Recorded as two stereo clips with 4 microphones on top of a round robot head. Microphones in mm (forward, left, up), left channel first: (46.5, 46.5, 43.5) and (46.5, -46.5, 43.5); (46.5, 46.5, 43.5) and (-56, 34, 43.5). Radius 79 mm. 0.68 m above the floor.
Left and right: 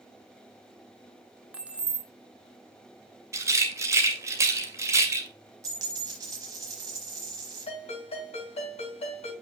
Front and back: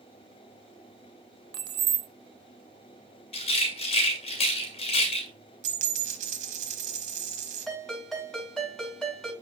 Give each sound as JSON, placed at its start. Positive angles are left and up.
{"t": 1.5, "sound": "keys jangling", "azimuth_deg": -165, "distance_m": 0.6}
{"t": 3.3, "sound": "a rattle", "azimuth_deg": -30, "distance_m": 2.0}
{"t": 5.6, "sound": "a dropped coin", "azimuth_deg": -155, "distance_m": 1.1}
{"t": 7.7, "sound": "a ringtone", "azimuth_deg": 95, "distance_m": 5.5}